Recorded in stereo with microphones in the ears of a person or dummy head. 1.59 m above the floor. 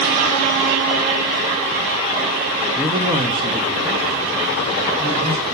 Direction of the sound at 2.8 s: 5° right (ahead or behind).